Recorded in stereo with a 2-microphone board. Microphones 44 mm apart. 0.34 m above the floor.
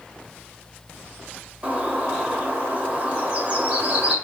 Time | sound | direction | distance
1.6 | a bird | 30° right (ahead or behind) | 1.3 m